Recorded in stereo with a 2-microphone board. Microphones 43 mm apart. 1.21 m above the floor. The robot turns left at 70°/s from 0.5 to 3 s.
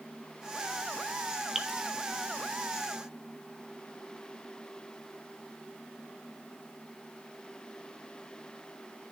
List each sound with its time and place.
1.6 s dripping: 10° right (ahead or behind), 0.8 m; by 1.8 s 5° left (ahead or behind), 0.8 m